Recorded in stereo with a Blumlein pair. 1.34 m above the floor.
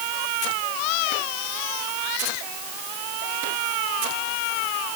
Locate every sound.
Only background noise.